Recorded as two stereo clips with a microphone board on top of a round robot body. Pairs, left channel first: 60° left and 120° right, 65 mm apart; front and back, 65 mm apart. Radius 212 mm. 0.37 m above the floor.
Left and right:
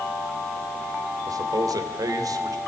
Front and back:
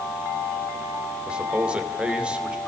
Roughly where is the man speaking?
Right.